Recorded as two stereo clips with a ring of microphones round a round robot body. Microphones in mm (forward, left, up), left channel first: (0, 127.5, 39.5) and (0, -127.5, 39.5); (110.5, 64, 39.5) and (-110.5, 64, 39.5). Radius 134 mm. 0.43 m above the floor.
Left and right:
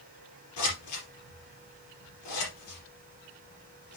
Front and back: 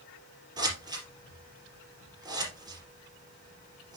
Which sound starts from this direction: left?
Scissors, at 0.6 s.